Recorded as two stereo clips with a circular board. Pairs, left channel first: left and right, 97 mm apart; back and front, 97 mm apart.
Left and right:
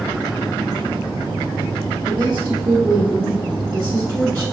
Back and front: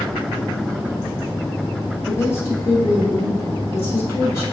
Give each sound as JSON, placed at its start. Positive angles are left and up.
{"t": 2.1, "sound": "a woman speaking", "azimuth_deg": -130, "distance_m": 1.0}